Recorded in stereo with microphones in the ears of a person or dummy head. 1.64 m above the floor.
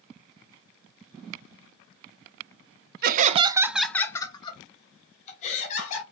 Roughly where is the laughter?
Right.